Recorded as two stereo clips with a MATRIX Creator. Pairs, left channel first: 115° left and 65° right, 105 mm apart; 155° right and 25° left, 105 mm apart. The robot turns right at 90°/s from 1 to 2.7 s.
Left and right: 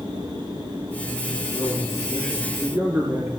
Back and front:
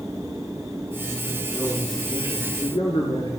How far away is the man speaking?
About 2.5 m.